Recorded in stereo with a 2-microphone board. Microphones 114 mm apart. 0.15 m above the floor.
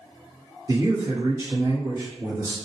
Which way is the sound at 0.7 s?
25° right (ahead or behind).